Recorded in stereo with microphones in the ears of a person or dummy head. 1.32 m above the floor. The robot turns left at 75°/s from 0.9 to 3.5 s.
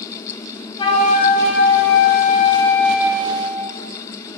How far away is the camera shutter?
No camera shutter in this recording.